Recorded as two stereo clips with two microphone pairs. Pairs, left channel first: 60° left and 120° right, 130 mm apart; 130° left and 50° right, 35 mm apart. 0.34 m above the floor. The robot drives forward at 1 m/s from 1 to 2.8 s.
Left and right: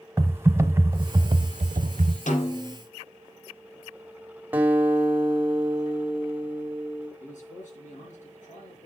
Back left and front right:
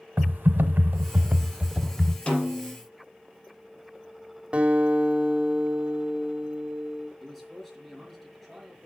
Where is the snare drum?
70° left, 4 m; by 2.8 s 75° left, 4 m.